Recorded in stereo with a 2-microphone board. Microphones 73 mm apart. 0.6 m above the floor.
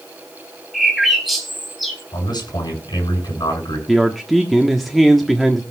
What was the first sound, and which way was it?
A bird, centre (ahead or behind).